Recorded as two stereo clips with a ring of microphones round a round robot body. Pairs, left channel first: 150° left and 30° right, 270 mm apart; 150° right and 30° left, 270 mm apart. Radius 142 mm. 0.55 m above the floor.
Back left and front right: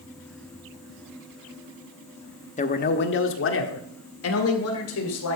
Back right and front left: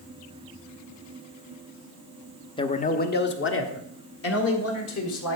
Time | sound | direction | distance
2.6 | a man speaking | 160° left | 0.9 m